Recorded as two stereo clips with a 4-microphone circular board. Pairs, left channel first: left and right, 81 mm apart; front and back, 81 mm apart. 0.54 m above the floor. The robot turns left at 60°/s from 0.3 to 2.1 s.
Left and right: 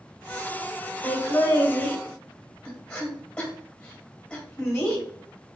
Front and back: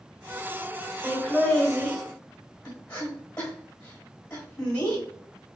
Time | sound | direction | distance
1.0 | laughter | 110° left | 1.3 m